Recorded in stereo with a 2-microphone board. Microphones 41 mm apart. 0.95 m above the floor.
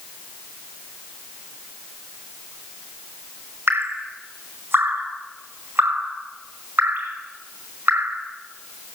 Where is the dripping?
75° right (ahead or behind), 5 m.